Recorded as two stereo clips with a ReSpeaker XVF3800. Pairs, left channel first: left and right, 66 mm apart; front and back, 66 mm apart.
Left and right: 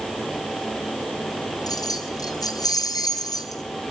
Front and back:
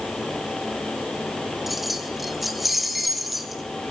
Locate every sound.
1.7 s keys jangling: 90° left, 3 m